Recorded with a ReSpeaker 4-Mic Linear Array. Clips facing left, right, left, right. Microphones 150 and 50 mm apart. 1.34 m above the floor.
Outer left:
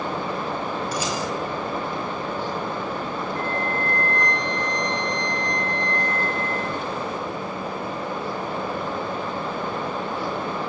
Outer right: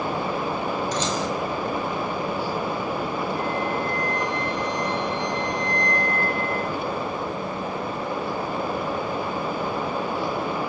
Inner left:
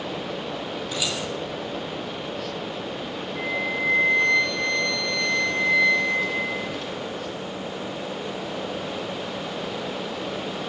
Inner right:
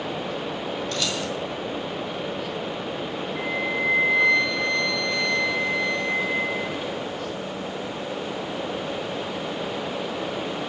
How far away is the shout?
No shout in this recording.